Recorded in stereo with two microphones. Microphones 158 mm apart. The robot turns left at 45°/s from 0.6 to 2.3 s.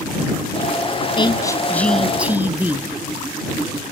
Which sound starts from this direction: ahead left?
A woman speaking, at 1.2 s.